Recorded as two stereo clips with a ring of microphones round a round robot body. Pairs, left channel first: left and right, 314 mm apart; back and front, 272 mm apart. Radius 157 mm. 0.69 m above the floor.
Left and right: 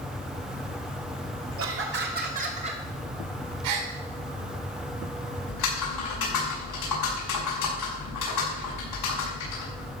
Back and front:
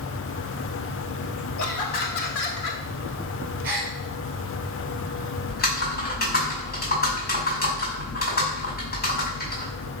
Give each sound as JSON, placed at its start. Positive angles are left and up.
{"t": 1.6, "sound": "laughter", "azimuth_deg": -140, "distance_m": 2.0}
{"t": 3.6, "sound": "a gasp", "azimuth_deg": -85, "distance_m": 3.0}
{"t": 5.5, "sound": "typing on a keyboard", "azimuth_deg": 125, "distance_m": 5.5}